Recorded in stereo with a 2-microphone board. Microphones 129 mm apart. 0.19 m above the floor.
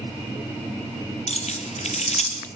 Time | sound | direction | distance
1.3 | keys jangling | 60° left (ahead or behind) | 4 m